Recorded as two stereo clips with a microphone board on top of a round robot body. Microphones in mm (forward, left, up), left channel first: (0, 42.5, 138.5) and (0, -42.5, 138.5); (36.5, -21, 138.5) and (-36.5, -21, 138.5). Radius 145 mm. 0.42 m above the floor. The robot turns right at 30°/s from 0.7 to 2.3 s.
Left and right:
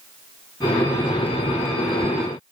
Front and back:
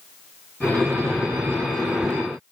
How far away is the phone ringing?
I don't hear a phone ringing.